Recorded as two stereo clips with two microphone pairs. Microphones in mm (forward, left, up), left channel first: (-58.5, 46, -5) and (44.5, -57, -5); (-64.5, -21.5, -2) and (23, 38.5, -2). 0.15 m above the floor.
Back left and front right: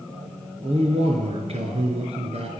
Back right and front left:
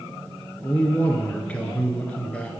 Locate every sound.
0.6 s a man speaking: 70° right, 1.7 m